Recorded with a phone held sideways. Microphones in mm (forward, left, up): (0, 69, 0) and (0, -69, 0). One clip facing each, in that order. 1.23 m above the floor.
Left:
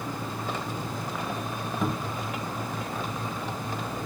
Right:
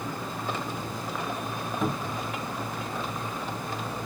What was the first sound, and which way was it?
A cupboard door, centre (ahead or behind).